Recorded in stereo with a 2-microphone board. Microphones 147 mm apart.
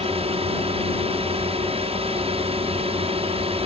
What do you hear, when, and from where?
0.0 s a drone: 45° right (ahead or behind)